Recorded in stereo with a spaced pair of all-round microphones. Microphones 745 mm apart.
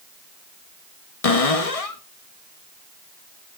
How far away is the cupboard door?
About 1.1 m.